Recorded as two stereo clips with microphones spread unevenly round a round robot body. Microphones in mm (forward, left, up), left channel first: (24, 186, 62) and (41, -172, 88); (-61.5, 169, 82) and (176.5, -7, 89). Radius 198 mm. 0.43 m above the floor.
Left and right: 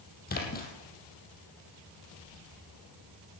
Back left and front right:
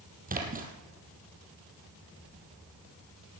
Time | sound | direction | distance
0.3 | a splash | 25° left | 3 m